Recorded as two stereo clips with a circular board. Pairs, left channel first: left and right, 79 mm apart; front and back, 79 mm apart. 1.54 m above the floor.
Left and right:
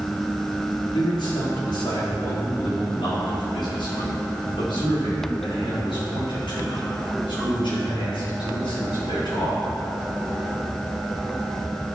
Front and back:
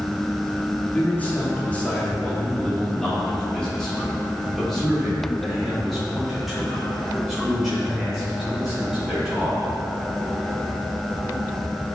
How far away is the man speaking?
About 3.5 m.